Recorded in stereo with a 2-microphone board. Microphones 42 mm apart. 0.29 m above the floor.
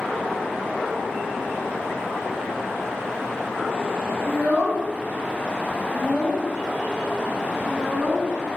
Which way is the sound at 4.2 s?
35° left (ahead or behind).